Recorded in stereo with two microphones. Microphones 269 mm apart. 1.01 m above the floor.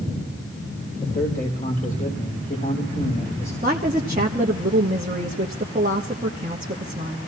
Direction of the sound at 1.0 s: 35° left (ahead or behind).